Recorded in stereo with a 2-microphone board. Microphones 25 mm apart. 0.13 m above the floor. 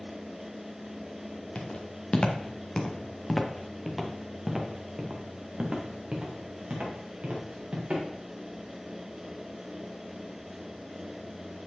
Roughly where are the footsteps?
Left.